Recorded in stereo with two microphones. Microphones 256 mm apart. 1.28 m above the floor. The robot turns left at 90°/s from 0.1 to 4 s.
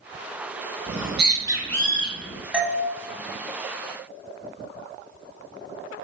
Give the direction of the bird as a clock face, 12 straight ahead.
4 o'clock.